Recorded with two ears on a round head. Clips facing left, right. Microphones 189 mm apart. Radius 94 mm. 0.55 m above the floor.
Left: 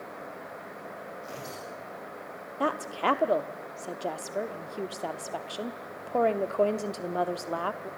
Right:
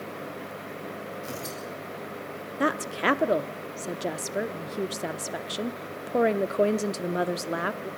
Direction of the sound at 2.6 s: 25° right (ahead or behind).